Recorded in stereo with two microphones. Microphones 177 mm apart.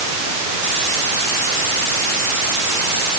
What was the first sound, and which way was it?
Only background noise.